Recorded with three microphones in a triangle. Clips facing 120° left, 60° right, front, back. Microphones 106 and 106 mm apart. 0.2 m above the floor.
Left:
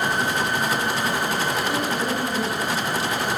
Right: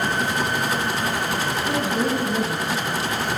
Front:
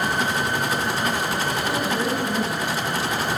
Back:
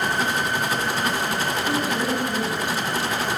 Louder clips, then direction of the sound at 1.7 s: Right 2 dB, even; 105° right.